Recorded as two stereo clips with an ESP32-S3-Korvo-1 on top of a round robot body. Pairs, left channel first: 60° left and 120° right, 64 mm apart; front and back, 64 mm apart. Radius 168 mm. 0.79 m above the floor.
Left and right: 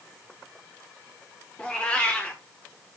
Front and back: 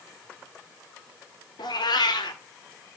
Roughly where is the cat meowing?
Ahead.